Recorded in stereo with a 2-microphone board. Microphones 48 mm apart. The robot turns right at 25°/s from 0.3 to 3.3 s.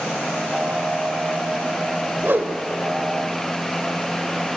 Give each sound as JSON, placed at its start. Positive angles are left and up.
{"t": 2.2, "sound": "a whoosh", "side_deg": -45, "distance_m": 1.4}